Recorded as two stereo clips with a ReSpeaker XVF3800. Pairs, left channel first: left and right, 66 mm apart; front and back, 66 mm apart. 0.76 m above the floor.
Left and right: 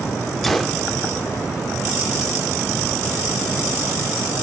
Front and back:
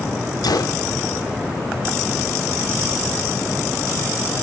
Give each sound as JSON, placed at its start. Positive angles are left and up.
{"t": 0.4, "sound": "a gunshot", "azimuth_deg": 0, "distance_m": 0.7}